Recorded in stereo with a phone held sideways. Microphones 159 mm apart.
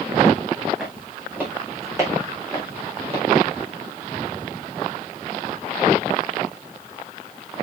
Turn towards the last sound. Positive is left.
turn(degrees=-40)  # may be behind; listen again after turning